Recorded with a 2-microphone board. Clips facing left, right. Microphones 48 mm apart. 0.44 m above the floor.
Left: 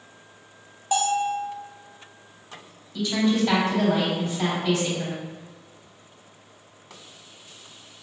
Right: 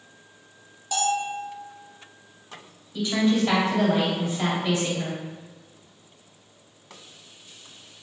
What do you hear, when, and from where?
0.9 s a bell: 30° left (ahead or behind), 0.9 m
2.9 s a woman speaking: 15° right (ahead or behind), 1.9 m